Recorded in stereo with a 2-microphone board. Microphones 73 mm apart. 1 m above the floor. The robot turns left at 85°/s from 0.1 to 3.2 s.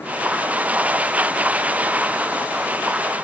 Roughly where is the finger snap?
No finger snap in this recording.